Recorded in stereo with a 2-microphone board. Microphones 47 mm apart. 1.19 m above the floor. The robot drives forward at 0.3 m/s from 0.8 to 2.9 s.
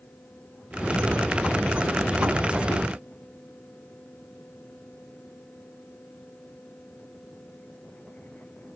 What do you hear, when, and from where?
Only background noise.